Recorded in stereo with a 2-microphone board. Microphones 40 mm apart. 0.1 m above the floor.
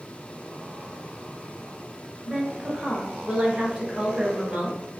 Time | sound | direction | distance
2.2 | a woman speaking | 25° right (ahead or behind) | 1.1 m